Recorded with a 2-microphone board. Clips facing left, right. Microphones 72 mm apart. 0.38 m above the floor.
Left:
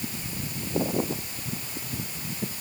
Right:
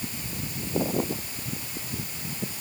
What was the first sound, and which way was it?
Only background noise.